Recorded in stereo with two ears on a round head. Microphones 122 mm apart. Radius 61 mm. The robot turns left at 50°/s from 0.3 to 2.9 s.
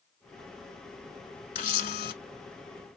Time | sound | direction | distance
1.6 | a camera shutter | 60° left (ahead or behind) | 0.8 m